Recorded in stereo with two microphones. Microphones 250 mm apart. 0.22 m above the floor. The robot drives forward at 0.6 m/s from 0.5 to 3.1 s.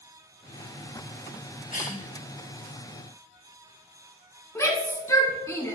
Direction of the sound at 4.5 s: 10° left (ahead or behind).